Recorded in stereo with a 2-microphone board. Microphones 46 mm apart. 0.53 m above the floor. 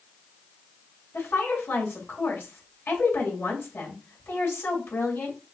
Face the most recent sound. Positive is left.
turn(degrees=55)  # may be behind; listen again after turning